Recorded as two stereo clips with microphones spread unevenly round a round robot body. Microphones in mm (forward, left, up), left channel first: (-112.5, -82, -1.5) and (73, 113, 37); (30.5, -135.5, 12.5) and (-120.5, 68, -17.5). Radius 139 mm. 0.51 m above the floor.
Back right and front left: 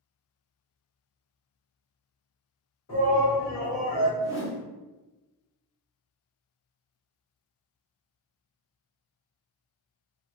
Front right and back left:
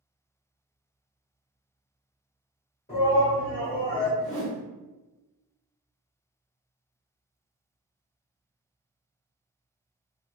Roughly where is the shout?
Right.